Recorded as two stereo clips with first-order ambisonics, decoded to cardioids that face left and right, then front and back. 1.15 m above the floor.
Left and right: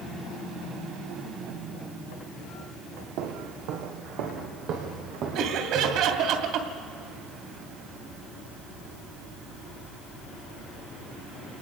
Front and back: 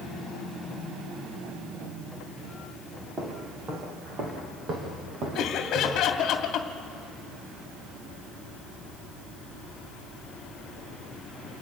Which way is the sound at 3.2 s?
110° right.